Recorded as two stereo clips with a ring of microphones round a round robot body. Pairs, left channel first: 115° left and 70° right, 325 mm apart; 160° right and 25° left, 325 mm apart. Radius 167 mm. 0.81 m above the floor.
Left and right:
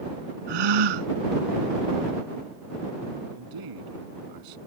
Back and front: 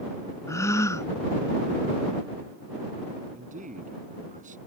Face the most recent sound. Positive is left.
turn(degrees=-45)